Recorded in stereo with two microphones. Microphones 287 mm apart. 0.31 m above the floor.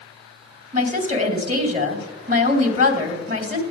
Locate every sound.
0.7 s a woman speaking: 25° right (ahead or behind), 2 m